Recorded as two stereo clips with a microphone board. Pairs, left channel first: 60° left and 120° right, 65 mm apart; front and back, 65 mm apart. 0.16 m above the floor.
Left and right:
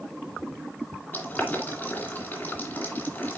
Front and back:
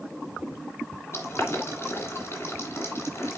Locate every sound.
1.1 s boiling: 15° left, 2 m